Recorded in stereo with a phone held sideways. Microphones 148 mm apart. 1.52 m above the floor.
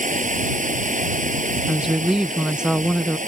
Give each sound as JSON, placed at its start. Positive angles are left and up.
{"t": 0.0, "sound": "running water", "side_deg": -60}
{"t": 1.7, "sound": "a woman speaking", "side_deg": -5}